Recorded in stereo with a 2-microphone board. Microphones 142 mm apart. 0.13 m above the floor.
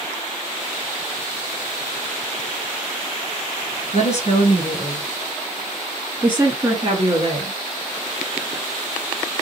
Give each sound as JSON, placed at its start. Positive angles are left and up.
{"t": 3.9, "sound": "a woman speaking", "side_deg": 55, "distance_m": 1.7}